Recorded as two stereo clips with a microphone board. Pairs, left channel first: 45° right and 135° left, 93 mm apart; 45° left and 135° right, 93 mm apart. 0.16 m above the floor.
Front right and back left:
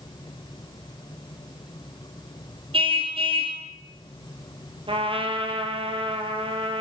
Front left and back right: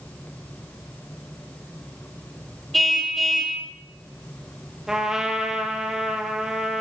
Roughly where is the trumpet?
Behind left.